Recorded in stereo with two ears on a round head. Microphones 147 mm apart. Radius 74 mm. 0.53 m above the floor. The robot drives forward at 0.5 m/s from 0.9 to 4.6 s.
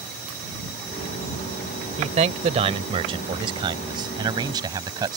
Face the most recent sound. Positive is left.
turn(degrees=-25)  # may be behind; listen again after turning